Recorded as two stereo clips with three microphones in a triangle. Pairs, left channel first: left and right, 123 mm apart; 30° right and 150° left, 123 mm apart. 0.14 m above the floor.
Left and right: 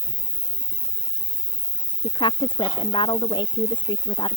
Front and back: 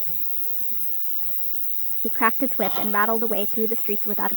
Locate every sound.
0.0 s an insect: 115° right
2.0 s a woman speaking: 45° left